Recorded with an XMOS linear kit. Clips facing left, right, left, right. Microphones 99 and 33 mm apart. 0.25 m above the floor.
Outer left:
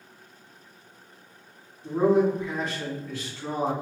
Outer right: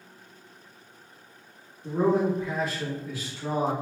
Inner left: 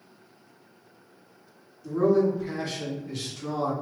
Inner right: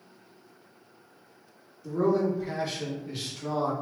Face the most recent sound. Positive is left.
turn(degrees=-15)  # may be behind; listen again after turning